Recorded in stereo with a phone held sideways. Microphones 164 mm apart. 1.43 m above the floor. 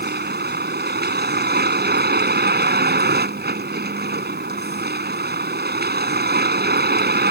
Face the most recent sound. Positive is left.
turn(degrees=-85)